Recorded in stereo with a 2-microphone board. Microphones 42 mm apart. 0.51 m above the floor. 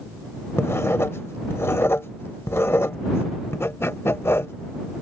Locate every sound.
0.6 s writing: 75° left (ahead or behind)